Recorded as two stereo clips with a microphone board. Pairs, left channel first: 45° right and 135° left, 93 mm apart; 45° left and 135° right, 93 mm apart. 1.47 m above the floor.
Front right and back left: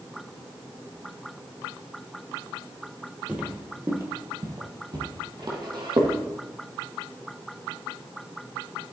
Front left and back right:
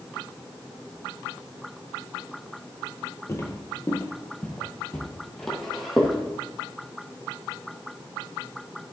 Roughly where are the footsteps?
Left.